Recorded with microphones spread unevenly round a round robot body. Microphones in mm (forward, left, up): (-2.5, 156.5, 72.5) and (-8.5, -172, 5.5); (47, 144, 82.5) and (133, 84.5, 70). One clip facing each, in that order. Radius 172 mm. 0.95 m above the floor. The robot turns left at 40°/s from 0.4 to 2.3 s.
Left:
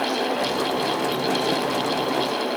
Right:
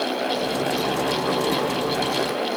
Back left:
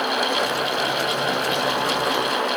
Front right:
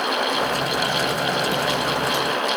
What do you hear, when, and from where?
Only background noise.